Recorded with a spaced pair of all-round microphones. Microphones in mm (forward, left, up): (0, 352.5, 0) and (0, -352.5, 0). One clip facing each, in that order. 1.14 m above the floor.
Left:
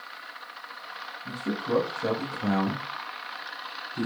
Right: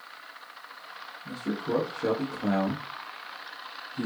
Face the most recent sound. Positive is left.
turn(degrees=65)  # may be behind; listen again after turning